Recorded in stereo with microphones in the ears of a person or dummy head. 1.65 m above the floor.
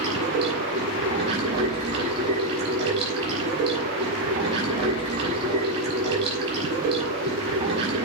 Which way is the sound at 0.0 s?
35° right (ahead or behind).